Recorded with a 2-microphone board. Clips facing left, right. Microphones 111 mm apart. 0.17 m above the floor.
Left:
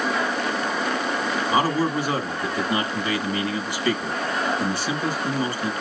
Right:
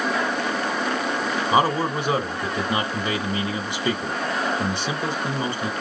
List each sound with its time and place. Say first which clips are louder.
1.5 s a man speaking: right 1 dB; 25° right (ahead or behind), 1.1 m